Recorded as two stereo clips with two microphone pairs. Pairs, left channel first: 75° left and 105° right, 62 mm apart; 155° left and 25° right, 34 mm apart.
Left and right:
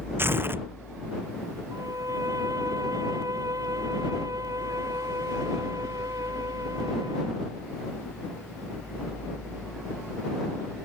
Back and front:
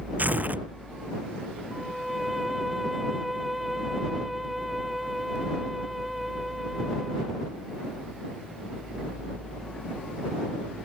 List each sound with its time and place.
0.2 s tearing paper: 55° right
1.7 s a violin: 110° right